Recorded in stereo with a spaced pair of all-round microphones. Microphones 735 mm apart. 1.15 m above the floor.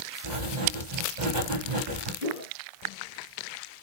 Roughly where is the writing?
Right.